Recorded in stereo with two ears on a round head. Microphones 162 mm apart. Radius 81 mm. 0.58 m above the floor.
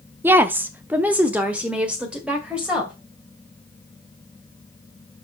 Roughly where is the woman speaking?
Centre.